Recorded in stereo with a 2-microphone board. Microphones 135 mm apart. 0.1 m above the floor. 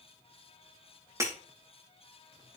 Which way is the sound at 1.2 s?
20° right (ahead or behind).